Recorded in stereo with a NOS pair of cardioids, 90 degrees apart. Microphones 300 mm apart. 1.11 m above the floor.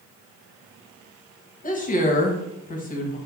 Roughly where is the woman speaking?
Ahead left.